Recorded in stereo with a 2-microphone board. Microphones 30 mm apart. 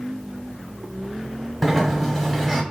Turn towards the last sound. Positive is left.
turn(degrees=5)  # may be behind; listen again after turning